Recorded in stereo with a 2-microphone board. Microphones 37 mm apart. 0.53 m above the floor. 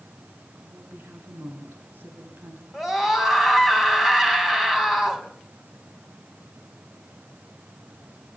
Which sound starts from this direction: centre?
A scream, at 2.7 s.